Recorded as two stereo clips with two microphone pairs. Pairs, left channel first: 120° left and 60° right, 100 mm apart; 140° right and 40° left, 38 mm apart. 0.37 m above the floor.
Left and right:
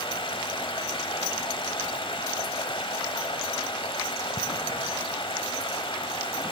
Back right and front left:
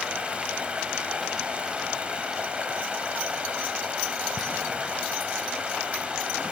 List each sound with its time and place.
0.0 s running water: 100° left, 1.1 m